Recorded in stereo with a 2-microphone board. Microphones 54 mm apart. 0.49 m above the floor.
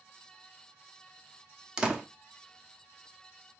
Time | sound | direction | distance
1.8 | a door slam | 15° right (ahead or behind) | 0.6 m